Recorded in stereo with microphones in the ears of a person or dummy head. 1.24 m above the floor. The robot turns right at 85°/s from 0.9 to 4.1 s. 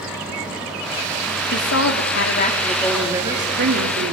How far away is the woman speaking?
About 3 m.